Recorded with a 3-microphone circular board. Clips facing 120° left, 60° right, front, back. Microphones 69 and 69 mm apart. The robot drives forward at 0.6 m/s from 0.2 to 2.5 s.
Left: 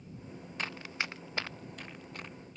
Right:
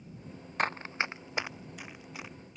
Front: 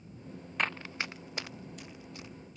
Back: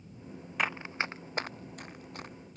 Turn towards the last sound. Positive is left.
turn(degrees=-145)